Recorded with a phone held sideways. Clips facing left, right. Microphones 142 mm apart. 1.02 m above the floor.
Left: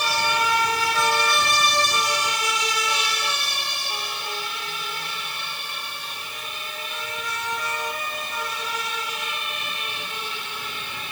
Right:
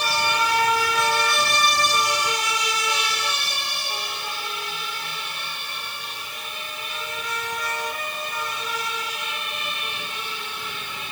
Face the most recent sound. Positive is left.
No sound to turn to.